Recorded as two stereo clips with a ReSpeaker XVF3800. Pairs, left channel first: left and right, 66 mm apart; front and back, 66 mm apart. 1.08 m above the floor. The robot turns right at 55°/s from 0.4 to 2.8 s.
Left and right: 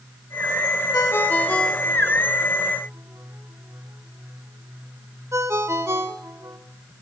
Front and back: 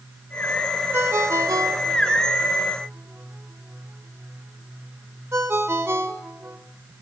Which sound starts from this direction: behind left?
A ringtone, at 0.9 s.